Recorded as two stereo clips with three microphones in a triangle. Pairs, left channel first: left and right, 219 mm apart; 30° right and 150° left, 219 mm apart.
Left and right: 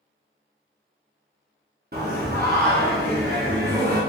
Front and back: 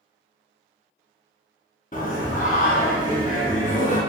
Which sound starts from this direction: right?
Singing, at 1.9 s.